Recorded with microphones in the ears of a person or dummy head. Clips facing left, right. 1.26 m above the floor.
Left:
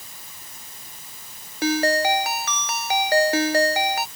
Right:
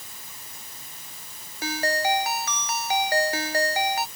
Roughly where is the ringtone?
Left.